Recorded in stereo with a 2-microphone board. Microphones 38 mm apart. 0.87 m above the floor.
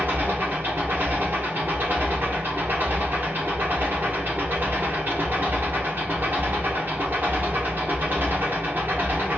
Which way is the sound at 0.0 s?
65° right (ahead or behind).